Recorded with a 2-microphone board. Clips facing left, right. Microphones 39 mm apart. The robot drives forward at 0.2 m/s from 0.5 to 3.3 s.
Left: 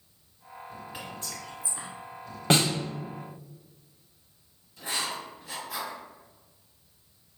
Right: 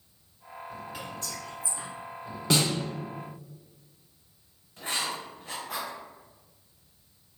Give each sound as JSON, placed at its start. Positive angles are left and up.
{"t": 0.9, "sound": "whispering", "side_deg": 20, "distance_m": 1.0}
{"t": 2.5, "sound": "a snare drum", "side_deg": 40, "distance_m": 0.5}
{"t": 4.8, "sound": "writing", "side_deg": -45, "distance_m": 0.8}